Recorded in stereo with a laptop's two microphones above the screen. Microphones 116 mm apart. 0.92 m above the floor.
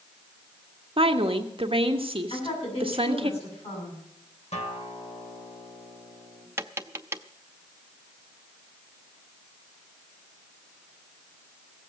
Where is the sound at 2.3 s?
55° left (ahead or behind), 7 m.